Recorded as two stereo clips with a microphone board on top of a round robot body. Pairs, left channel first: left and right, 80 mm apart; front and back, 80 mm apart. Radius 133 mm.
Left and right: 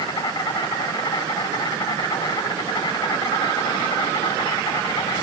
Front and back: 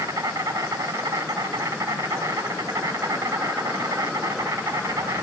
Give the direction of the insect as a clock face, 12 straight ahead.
8 o'clock.